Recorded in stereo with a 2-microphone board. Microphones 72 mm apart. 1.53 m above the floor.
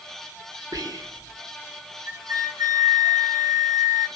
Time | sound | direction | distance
0.7 | whispering | 65° right (ahead or behind) | 1.1 m
2.1 | a flute | 65° right (ahead or behind) | 1.5 m